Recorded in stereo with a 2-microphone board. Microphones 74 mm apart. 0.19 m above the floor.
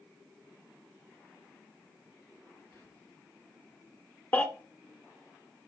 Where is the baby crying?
25° left (ahead or behind), 0.8 m.